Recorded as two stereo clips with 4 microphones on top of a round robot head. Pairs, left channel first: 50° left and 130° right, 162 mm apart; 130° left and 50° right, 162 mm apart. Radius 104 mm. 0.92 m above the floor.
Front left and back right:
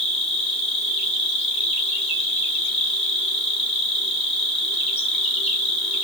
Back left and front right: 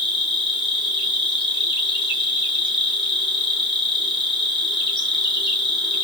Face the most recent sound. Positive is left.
turn(degrees=85)